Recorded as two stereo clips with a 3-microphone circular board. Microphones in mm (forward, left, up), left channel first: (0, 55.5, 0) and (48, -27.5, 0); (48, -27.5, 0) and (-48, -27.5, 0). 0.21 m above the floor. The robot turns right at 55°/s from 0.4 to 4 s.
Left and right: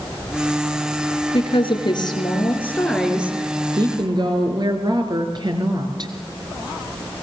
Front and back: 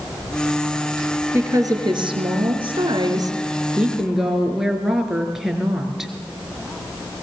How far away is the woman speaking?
About 3.5 m.